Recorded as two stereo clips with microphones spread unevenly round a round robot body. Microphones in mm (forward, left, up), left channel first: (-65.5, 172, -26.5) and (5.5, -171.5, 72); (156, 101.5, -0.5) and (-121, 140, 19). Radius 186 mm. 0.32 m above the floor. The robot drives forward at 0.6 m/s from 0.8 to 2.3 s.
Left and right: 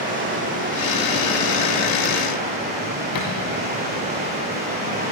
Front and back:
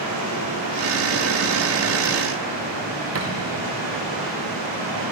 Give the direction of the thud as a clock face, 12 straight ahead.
8 o'clock.